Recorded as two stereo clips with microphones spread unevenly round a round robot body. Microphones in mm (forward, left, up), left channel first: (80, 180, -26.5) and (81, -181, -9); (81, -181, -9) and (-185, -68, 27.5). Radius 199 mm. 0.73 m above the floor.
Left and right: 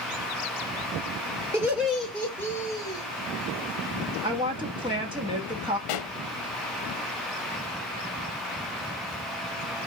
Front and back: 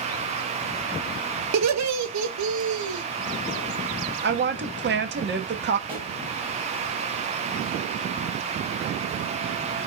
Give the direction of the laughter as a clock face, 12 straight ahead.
6 o'clock.